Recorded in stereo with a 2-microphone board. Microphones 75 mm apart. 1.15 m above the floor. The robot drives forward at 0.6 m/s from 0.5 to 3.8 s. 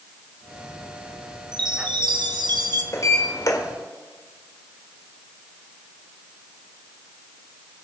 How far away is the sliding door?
About 2.0 m.